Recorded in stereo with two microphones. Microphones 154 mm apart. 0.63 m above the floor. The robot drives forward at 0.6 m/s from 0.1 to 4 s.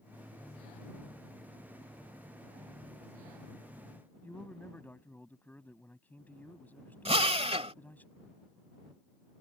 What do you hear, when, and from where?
4.2 s a man speaking: 10° left (ahead or behind)
7.0 s a drill: 40° right (ahead or behind)